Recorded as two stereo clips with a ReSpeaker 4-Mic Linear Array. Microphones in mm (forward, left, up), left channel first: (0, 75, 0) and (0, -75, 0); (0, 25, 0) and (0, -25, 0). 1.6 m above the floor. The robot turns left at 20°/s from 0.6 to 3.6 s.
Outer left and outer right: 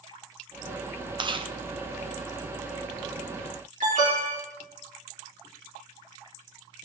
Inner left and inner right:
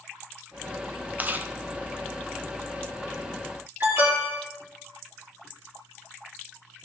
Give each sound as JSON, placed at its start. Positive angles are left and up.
{"t": 1.2, "sound": "chewing", "side_deg": -30, "distance_m": 0.9}
{"t": 3.8, "sound": "an alarm", "side_deg": -55, "distance_m": 4.5}